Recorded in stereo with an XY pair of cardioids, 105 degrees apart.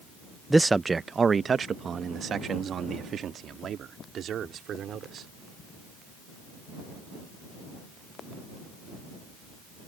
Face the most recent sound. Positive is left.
turn(degrees=-65)